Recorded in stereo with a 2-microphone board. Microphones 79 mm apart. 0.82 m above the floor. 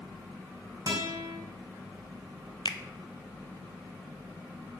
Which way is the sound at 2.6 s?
70° left (ahead or behind).